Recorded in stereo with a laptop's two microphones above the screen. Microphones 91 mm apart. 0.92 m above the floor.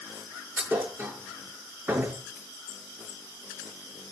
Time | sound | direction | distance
0.6 | a thud | 25° right (ahead or behind) | 5.5 m